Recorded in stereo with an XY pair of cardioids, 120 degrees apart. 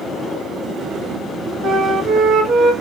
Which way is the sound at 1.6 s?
70° right.